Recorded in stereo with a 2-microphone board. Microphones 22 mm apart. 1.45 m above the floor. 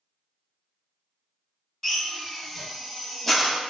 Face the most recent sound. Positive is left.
turn(degrees=10)  # may be behind; listen again after turning